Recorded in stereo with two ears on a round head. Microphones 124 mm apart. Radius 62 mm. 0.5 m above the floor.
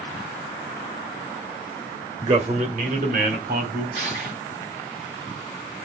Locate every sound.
2.2 s a man speaking: 40° right (ahead or behind), 1.6 m; by 3.9 s 70° right (ahead or behind), 3.5 m
4.0 s crushing: 55° right (ahead or behind), 7.5 m